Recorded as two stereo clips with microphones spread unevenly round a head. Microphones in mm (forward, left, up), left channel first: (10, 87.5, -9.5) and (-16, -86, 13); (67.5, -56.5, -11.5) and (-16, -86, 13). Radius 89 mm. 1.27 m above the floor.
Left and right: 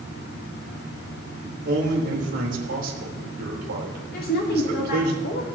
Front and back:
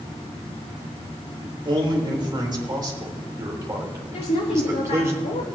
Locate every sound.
1.4 s a man speaking: 130° right, 4 m; by 5.1 s 100° right, 4 m
4.1 s a woman speaking: 40° left, 1.3 m